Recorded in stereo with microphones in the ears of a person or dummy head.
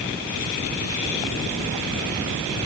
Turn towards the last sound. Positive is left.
No sound to turn to.